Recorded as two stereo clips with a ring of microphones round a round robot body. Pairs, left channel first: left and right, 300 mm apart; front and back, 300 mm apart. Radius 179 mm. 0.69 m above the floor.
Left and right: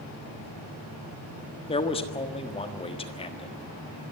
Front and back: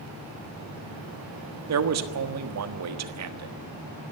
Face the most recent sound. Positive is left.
turn(degrees=160)